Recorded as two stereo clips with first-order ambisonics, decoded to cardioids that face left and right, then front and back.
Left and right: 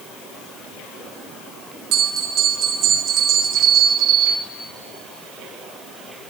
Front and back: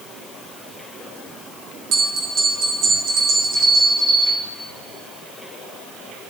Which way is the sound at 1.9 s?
135° right.